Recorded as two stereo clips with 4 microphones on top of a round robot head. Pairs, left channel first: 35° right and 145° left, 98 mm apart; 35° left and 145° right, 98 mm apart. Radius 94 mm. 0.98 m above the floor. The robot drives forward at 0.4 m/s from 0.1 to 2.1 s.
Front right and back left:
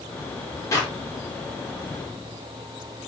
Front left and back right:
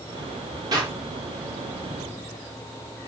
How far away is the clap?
About 4.5 m.